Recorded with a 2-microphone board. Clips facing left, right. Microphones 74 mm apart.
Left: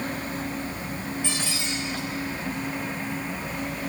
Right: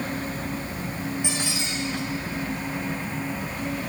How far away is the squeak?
About 5.5 m.